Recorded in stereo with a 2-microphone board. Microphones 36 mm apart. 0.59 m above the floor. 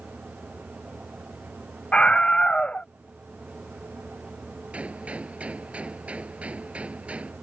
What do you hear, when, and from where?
1.9 s a scream: 30° left (ahead or behind)
4.7 s a gunshot: 40° right (ahead or behind)